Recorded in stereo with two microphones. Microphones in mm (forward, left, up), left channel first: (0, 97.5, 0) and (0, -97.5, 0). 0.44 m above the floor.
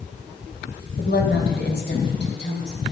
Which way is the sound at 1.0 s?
55° left (ahead or behind).